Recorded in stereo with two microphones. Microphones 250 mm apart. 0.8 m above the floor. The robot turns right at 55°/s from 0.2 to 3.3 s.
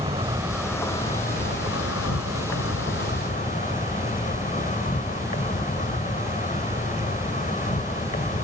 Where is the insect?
25° right; by 8.4 s 145° left.